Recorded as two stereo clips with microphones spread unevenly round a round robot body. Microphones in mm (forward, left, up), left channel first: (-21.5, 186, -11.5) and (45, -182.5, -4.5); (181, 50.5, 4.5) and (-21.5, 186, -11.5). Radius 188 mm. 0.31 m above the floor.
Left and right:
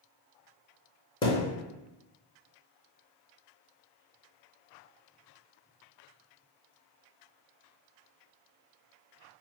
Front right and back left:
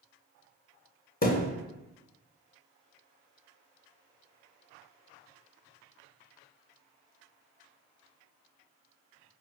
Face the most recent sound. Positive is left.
turn(degrees=25)